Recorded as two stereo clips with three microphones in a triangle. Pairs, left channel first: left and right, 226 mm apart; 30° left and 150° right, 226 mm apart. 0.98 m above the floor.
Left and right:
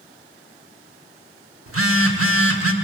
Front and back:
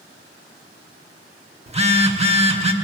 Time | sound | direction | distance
1.7 | a phone buzzing | 85° right | 1.0 m